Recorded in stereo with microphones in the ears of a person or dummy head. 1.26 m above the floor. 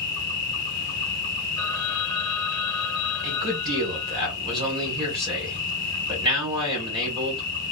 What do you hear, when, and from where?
0.0 s an insect: 35° left (ahead or behind), 1.2 m
1.6 s a phone ringing: centre (ahead or behind), 1.9 m
3.2 s a man speaking: 20° right (ahead or behind), 1.3 m